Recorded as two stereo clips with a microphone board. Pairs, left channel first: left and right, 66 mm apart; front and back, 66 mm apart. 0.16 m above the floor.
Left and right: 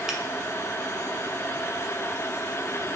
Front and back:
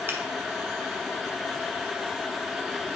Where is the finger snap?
165° right, 1.2 m.